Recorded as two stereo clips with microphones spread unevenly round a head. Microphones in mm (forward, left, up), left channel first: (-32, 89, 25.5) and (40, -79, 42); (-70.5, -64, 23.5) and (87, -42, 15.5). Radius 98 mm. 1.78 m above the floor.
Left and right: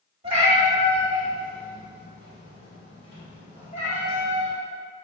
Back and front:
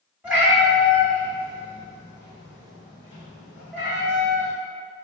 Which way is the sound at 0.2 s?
65° right.